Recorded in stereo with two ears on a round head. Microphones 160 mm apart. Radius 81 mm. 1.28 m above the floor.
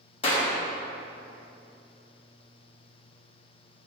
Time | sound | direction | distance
0.2 | a clap | 30° left (ahead or behind) | 1.4 m